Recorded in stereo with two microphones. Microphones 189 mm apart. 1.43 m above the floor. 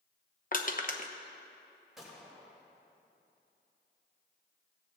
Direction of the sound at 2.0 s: Centre (ahead or behind).